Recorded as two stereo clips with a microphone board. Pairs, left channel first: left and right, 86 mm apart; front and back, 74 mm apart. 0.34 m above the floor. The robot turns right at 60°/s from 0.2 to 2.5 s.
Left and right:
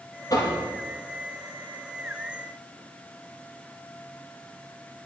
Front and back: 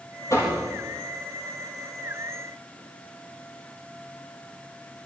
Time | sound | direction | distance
0.3 | knocking | 45° left | 6 m